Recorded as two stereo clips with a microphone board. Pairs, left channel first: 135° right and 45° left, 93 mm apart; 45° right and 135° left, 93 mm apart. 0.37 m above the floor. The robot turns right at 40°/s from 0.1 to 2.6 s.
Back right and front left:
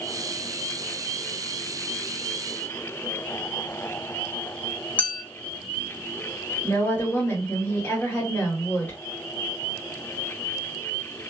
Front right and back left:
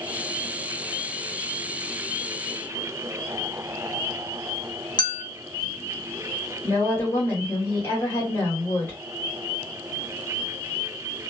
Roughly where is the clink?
Ahead right.